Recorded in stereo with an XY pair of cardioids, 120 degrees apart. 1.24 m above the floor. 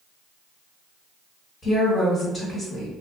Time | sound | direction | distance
1.6 | a woman speaking | 35° left | 1.5 m